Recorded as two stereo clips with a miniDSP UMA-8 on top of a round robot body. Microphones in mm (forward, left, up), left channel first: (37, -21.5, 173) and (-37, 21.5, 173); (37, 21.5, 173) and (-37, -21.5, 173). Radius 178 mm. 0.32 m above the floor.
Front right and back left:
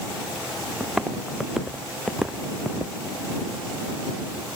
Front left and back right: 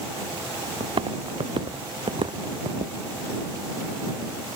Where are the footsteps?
130° right; by 3.0 s 125° right.